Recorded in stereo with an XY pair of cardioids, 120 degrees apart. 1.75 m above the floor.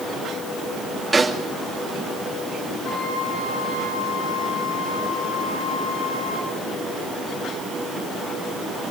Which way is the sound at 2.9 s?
70° left.